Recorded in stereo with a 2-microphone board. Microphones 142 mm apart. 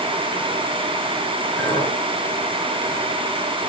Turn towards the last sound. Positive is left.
turn(degrees=5)  # may be behind; listen again after turning